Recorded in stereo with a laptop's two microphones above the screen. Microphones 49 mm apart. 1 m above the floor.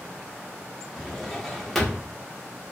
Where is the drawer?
5° left (ahead or behind), 0.6 m.